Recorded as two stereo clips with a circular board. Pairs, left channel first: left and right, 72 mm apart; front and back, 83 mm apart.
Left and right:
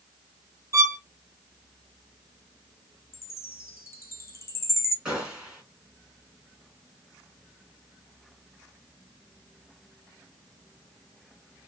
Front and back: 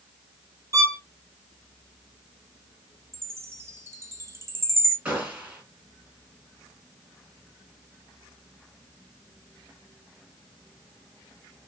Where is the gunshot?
140° right, 1.3 m.